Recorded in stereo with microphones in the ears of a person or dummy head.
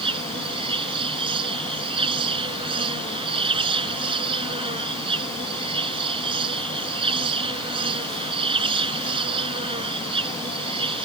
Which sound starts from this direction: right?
An insect, at 0.0 s.